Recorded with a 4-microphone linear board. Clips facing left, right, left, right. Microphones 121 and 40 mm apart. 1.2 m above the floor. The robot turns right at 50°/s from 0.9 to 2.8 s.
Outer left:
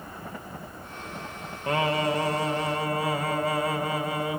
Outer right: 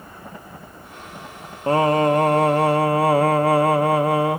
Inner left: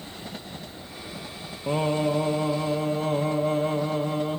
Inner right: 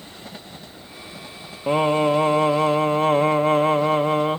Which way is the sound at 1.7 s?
145° right.